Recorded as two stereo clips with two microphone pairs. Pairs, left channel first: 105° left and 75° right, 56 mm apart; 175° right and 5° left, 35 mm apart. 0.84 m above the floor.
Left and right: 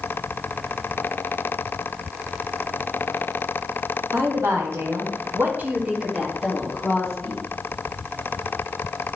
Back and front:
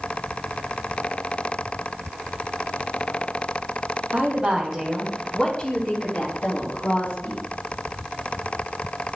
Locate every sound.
4.1 s a woman speaking: 50° right, 1.8 m; by 7.4 s 175° right, 2.5 m